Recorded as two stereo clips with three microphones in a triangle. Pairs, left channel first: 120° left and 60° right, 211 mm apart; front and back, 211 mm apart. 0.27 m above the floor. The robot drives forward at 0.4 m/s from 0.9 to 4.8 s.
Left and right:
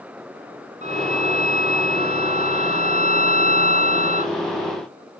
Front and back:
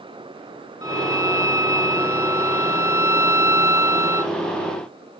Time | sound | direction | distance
0.8 | a violin | 5° right | ?